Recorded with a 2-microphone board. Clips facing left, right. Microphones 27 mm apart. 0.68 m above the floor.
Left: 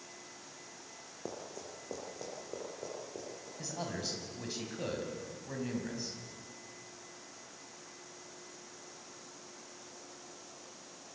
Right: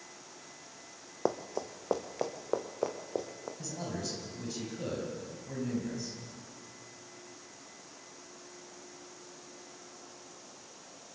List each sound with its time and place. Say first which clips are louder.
1.2 s running footsteps: right 11 dB; 65° right (ahead or behind), 1.8 m
3.6 s a man speaking: even; 25° left (ahead or behind), 5.5 m